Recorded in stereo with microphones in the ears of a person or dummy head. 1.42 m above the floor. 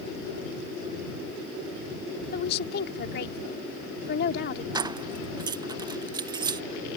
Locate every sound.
2.3 s a woman speaking: 65° left (ahead or behind)
4.8 s keys jangling: 25° right (ahead or behind)